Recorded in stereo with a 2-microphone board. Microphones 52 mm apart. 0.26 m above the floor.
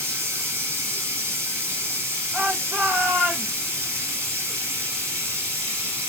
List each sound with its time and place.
0.0 s running water: 55° right (ahead or behind), 1.9 m
2.3 s a shout: 40° right (ahead or behind), 3.5 m